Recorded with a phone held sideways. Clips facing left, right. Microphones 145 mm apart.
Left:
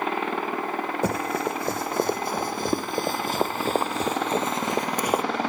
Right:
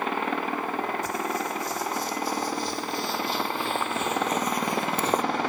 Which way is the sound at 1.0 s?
65° left (ahead or behind).